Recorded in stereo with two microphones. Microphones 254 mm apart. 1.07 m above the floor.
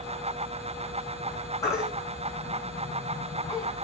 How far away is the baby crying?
About 6.5 m.